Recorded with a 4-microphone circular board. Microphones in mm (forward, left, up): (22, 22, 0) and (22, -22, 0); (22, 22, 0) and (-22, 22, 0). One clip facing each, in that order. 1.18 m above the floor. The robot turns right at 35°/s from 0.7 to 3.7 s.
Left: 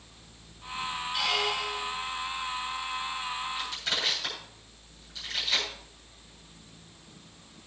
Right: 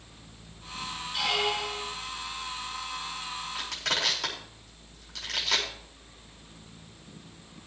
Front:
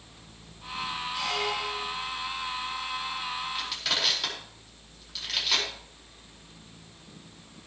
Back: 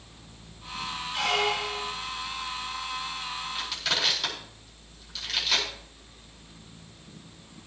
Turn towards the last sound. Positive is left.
turn(degrees=-90)